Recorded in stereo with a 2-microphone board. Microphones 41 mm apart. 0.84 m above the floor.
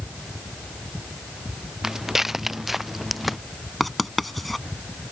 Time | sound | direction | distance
1.8 | footsteps | 10° right (ahead or behind) | ?
3.8 | writing | centre (ahead or behind) | ?